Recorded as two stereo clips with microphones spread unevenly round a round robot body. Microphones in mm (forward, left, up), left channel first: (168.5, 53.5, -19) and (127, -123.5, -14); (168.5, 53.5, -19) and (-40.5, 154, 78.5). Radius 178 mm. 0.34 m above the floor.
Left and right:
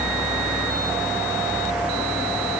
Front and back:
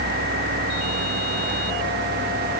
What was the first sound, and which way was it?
Only background noise.